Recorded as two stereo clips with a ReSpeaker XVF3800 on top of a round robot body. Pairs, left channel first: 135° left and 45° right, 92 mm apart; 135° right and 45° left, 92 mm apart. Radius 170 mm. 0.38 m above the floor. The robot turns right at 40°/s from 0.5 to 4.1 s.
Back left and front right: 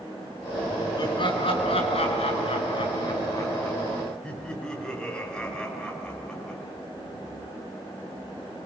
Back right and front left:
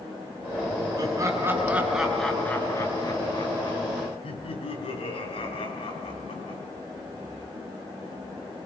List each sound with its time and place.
1.0 s laughter: 90° left, 7.5 m; by 6.6 s 145° right, 7.5 m